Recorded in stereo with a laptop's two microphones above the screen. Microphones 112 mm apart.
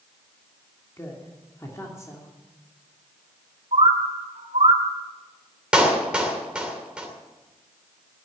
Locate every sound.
1.0 s a woman speaking: 25° left (ahead or behind), 2.5 m
3.7 s a bird: 65° right (ahead or behind), 3 m
5.7 s a clap: 10° right (ahead or behind), 2.5 m